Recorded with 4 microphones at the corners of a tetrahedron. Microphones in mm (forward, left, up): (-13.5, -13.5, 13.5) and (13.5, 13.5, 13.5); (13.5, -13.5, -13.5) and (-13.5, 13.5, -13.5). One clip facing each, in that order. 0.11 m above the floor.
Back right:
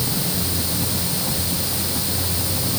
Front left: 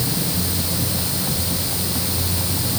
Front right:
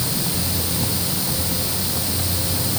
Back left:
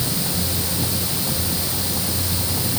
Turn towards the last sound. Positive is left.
No sound to turn to.